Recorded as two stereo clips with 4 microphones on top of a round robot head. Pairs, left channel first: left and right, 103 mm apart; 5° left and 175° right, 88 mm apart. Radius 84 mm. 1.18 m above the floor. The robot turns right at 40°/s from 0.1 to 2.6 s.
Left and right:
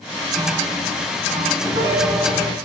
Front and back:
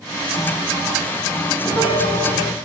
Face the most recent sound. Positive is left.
turn(degrees=-5)